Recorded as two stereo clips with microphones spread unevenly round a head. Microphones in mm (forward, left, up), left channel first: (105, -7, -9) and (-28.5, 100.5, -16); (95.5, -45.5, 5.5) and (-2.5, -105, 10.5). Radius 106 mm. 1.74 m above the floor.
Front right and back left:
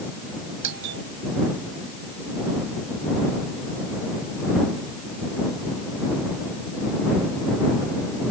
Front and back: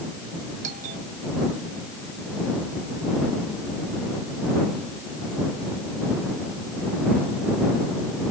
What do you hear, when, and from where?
0.6 s a doorbell: 160° left